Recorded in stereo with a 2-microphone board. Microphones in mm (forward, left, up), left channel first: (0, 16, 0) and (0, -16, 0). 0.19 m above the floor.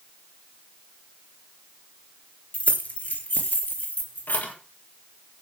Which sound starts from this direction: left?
Keys jangling, at 2.5 s.